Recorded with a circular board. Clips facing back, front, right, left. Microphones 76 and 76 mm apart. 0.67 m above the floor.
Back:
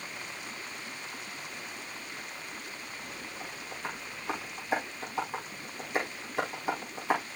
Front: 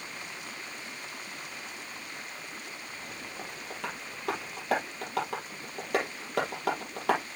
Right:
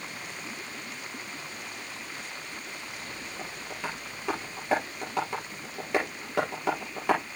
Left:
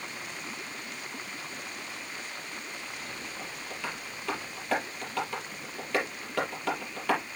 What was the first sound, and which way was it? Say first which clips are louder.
Tapping: front 2 dB, right 2 dB; 20° right.